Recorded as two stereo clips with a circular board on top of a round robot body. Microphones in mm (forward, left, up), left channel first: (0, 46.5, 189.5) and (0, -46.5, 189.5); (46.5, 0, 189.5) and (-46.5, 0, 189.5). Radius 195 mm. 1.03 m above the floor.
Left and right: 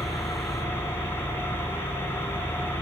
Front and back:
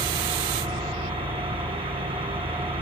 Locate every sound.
0.0 s an engine running: 155° left, 3.5 m